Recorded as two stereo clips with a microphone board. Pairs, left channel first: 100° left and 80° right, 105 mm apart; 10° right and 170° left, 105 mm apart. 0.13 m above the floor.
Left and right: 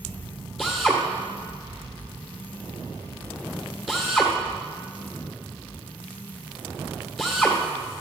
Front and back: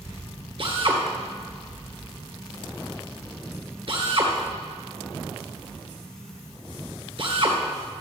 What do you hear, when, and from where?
0.6 s a drill: 170° right, 1.9 m